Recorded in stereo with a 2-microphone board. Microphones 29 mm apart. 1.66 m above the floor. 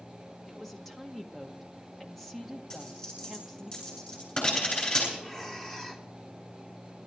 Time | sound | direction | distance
0.5 | a woman speaking | 5° left (ahead or behind) | 1.4 m
2.7 | a dropped coin | 40° left (ahead or behind) | 9 m
5.2 | breathing | 20° left (ahead or behind) | 1.3 m